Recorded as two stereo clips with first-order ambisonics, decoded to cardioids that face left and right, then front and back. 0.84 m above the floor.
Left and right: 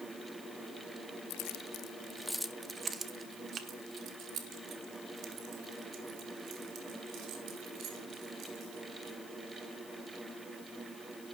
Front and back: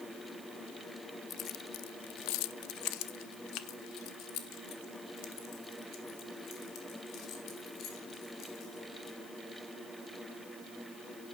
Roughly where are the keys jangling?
Ahead left.